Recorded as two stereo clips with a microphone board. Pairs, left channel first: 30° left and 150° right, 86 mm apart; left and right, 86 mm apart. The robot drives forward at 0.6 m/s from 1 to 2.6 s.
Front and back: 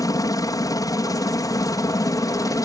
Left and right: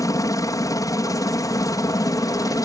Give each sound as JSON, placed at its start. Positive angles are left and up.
{"t": 0.0, "sound": "a helicopter", "azimuth_deg": 60}